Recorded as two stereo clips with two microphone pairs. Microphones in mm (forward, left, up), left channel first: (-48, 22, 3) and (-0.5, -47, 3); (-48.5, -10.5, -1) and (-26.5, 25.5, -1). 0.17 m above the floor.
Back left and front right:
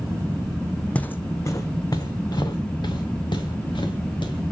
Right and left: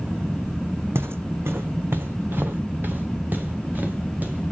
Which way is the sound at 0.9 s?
50° left.